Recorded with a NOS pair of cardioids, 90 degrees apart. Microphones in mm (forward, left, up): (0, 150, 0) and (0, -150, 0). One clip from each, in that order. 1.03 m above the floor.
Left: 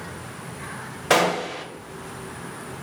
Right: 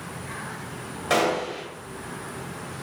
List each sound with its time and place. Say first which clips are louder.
1.1 s a gunshot: left 3 dB; 50° left, 2.5 m